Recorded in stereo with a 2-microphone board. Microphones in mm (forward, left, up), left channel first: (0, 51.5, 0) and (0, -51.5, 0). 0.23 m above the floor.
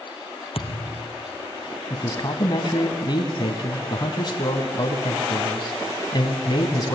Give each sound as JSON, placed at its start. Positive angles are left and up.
{"t": 0.6, "sound": "a thud", "side_deg": 70, "distance_m": 1.6}
{"t": 1.9, "sound": "a man speaking", "side_deg": 45, "distance_m": 1.7}